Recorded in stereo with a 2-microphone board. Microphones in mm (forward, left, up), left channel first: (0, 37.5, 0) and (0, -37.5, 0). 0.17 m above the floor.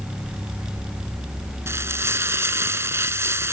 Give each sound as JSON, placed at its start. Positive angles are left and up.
{"t": 1.7, "sound": "frying", "side_deg": -35}